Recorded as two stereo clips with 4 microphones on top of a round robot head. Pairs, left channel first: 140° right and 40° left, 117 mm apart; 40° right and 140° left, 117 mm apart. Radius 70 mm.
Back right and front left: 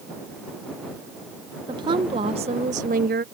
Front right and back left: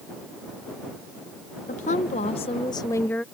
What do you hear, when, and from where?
1.7 s a woman speaking: 15° right; by 3.2 s 40° left